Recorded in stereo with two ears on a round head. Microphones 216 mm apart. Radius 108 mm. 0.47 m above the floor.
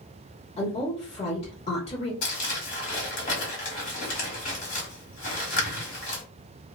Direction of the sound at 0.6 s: 25° left (ahead or behind).